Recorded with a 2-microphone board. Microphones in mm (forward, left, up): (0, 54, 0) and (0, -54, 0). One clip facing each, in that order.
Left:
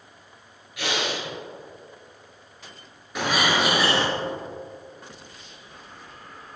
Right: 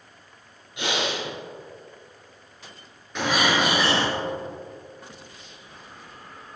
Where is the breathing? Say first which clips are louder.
Right 1 dB; 25° right (ahead or behind), 1.7 m.